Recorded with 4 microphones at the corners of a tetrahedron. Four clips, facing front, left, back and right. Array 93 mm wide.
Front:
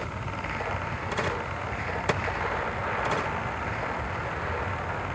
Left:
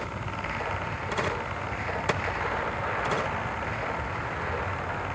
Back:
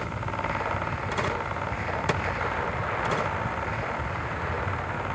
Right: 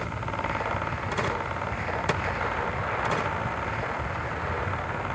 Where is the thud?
I don't hear a thud.